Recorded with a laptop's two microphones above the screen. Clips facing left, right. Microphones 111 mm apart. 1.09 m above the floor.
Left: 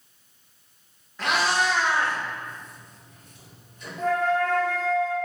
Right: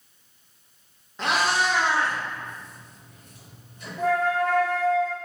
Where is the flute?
10° right (ahead or behind), 1.2 m.